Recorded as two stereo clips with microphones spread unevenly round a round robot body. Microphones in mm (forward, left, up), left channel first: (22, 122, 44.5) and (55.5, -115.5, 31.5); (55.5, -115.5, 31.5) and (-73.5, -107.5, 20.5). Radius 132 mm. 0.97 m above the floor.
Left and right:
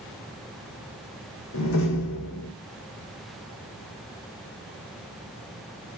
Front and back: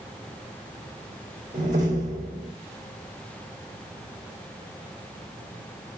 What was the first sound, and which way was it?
A door slam, 125° left.